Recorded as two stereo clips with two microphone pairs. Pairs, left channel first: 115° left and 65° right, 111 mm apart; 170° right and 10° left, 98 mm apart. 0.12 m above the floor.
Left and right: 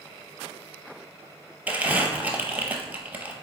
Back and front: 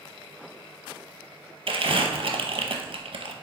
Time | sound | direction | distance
1.7 | crumpling | 5° left | 0.6 m